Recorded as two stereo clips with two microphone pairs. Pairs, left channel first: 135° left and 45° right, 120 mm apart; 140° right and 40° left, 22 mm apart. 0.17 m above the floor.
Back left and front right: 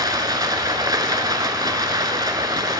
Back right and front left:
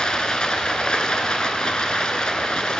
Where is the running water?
100° right, 0.7 m.